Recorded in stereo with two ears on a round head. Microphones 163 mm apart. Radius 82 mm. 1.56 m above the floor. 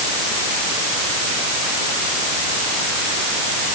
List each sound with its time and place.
Only background noise.